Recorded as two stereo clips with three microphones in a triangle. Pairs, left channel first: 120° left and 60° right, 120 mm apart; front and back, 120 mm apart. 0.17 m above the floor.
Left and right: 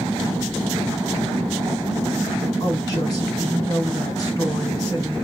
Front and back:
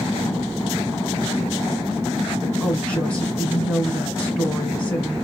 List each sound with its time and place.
2.6 s a woman speaking: 70° left, 2.5 m